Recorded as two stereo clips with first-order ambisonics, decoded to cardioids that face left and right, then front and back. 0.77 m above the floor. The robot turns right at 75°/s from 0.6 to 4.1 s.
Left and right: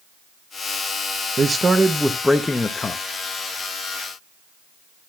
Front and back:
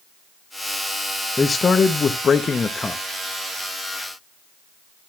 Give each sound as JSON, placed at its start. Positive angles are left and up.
{"t": 1.4, "sound": "a man speaking", "azimuth_deg": -60, "distance_m": 0.6}